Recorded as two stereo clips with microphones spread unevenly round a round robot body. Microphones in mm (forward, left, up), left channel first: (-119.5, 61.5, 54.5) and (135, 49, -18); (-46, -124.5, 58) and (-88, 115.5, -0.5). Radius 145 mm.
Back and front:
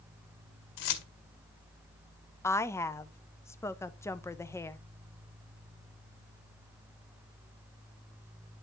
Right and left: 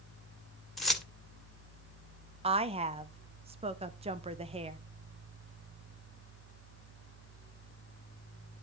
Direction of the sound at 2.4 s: 80° left.